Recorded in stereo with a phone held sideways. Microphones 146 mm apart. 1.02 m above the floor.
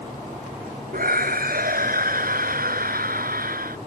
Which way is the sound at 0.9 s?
80° right.